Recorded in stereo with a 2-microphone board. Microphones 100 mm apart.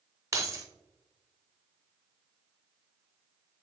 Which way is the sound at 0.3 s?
30° right (ahead or behind).